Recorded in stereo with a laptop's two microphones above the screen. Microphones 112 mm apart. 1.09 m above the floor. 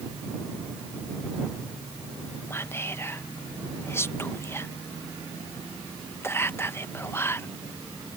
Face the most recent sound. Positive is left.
turn(degrees=20)  # may be behind; listen again after turning